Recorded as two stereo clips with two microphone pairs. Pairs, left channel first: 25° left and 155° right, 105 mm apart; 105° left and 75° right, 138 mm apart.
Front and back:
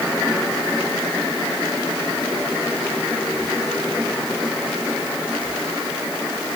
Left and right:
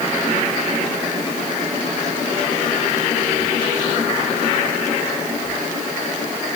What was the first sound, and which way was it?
Only background noise.